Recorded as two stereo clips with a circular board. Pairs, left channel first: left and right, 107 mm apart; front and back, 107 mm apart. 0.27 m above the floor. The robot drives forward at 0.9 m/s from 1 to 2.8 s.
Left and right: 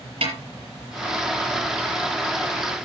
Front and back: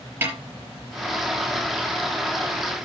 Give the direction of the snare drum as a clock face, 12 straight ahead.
4 o'clock.